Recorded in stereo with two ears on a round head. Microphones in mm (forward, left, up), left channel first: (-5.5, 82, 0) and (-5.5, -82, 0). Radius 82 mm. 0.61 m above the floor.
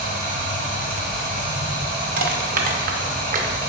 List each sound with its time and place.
0.0 s running water: 50° right (ahead or behind), 1.5 m
2.2 s crushing: 50° right (ahead or behind), 0.6 m